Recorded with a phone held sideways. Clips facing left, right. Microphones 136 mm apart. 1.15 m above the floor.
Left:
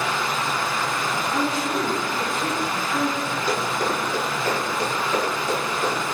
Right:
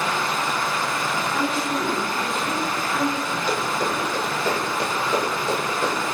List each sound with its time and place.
0.0 s running water: 50° right (ahead or behind), 1.8 m
1.3 s a woman speaking: 45° left (ahead or behind), 0.6 m
3.5 s running footsteps: 5° left (ahead or behind), 1.8 m; by 6.2 s 40° right (ahead or behind), 1.8 m